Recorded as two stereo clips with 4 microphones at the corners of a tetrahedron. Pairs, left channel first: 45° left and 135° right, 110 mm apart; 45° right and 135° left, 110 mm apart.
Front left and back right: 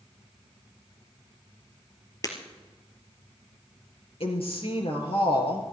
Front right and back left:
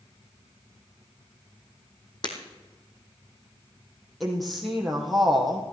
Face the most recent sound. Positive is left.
turn(degrees=45)